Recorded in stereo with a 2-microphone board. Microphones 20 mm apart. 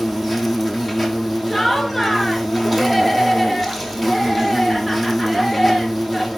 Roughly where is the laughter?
Centre.